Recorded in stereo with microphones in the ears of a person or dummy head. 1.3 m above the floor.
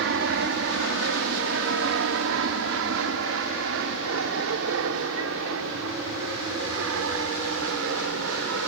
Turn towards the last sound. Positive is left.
turn(degrees=-75)  # may be behind; listen again after turning